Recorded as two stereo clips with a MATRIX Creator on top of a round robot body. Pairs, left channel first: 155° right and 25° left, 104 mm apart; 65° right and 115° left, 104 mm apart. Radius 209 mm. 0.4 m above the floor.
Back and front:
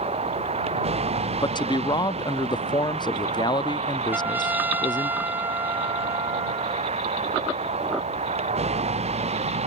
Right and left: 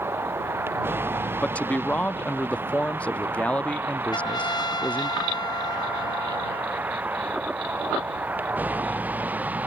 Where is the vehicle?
45° left; by 9.7 s 35° left.